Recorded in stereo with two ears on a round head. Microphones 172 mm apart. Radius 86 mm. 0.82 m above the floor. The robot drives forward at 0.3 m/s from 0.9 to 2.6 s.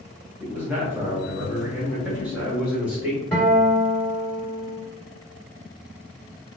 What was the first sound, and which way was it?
A man speaking, 10° right (ahead or behind).